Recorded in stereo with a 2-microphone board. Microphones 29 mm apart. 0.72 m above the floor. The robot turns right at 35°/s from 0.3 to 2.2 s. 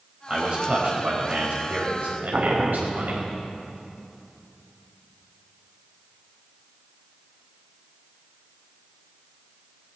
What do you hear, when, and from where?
0.3 s a man speaking: 155° right, 4 m; by 3.3 s 90° right, 4 m
2.3 s boiling: 45° right (ahead or behind), 0.9 m